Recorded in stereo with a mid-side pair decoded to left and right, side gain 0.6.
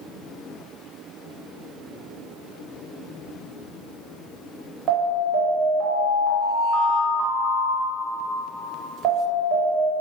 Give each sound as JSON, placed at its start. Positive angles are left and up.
{"t": 4.9, "sound": "an alarm", "azimuth_deg": -55, "distance_m": 1.0}